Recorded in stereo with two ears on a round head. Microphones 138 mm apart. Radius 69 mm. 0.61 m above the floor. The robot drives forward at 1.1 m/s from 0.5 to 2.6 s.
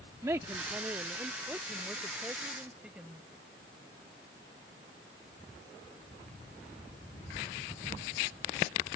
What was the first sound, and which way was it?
A woman speaking, 20° right (ahead or behind).